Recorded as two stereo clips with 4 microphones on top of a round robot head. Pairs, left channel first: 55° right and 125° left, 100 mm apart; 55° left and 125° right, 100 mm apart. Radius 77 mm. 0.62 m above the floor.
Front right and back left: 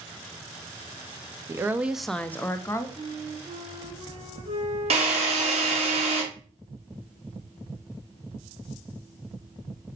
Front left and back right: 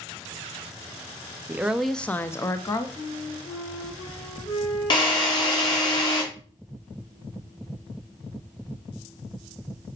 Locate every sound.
1.5 s a woman speaking: 170° left, 0.6 m; by 2.9 s 5° left, 0.9 m
3.0 s a flute: 100° left, 3.5 m
4.9 s a drill: 100° left, 2.5 m